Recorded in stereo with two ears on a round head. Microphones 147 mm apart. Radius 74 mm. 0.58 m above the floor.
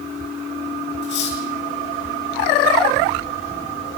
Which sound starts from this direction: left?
Cutlery clinking, at 1.0 s.